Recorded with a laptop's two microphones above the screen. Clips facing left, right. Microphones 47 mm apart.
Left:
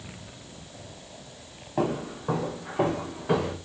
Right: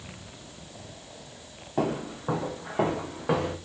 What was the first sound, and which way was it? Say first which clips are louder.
Footsteps: left 1 dB; centre (ahead or behind).